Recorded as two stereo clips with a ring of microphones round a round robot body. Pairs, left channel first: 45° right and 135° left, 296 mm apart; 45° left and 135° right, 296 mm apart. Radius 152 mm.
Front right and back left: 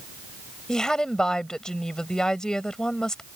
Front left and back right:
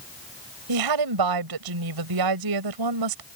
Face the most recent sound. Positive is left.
turn(degrees=-135)